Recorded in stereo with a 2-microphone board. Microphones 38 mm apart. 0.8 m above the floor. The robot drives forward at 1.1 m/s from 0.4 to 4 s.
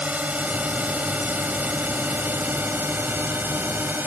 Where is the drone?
40° right (ahead or behind); by 4.1 s 65° right (ahead or behind).